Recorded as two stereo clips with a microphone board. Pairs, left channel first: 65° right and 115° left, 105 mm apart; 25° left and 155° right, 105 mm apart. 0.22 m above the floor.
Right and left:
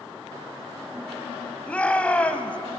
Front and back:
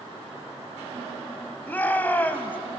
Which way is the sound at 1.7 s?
15° right.